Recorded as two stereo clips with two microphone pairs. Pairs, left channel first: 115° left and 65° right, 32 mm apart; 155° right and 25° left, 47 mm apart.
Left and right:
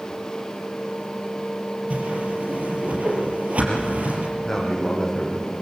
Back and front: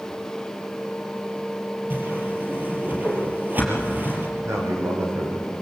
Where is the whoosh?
20° right, 5 m.